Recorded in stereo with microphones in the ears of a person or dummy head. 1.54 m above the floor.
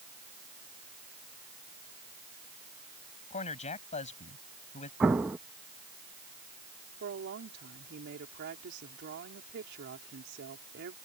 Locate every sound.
3.3 s a man speaking: 35° left (ahead or behind)
5.0 s an explosion: 5° right (ahead or behind)
7.0 s a woman speaking: 60° right (ahead or behind)